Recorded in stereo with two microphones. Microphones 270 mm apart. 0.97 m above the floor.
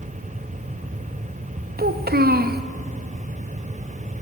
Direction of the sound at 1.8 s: 35° right (ahead or behind).